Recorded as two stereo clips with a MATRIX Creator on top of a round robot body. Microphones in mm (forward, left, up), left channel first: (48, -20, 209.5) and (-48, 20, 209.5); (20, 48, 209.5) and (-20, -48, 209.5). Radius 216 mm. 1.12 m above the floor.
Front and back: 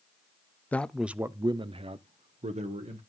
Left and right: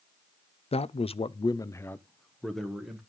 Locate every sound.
0.7 s a man speaking: 50° left, 0.8 m; by 3.0 s 160° left, 1.5 m